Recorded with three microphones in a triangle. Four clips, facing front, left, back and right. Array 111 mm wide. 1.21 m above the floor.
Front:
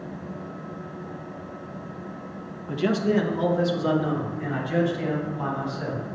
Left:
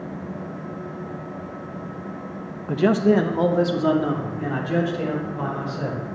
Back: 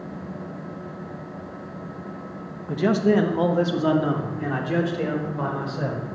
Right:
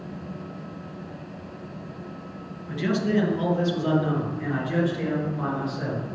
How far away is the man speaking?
About 1.3 m.